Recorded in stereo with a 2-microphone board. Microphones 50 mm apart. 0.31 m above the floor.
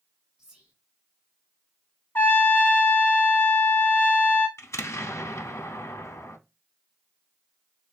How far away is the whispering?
About 1.5 m.